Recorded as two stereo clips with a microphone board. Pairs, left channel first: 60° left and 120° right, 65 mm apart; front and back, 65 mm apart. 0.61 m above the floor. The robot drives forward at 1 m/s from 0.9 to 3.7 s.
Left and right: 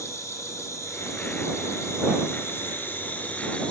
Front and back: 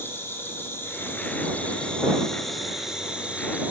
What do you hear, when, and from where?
0.0 s an insect: 45° left, 3 m; by 3.7 s 125° left, 2.5 m